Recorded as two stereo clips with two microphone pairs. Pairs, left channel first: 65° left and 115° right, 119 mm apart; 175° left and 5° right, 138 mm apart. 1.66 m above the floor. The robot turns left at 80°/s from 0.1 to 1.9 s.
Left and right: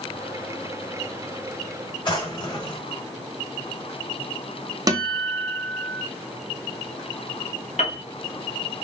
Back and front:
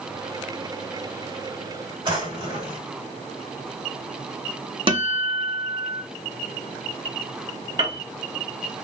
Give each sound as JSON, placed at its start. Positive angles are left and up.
{"t": 2.0, "sound": "a drawer", "azimuth_deg": 40, "distance_m": 1.9}
{"t": 4.9, "sound": "a guitar", "azimuth_deg": -55, "distance_m": 0.7}
{"t": 7.8, "sound": "a piano", "azimuth_deg": 55, "distance_m": 1.2}